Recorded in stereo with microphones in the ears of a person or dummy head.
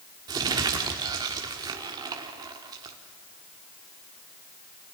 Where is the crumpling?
15° right (ahead or behind), 1.6 m.